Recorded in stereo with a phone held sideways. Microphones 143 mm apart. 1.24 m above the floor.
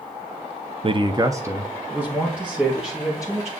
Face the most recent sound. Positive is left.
turn(degrees=-5)  # may be behind; listen again after turning